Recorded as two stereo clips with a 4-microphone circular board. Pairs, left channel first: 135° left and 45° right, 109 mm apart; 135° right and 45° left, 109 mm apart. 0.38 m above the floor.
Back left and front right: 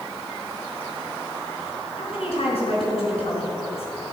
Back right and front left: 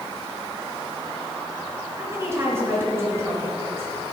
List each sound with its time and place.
2.0 s a woman speaking: 110° left, 4.5 m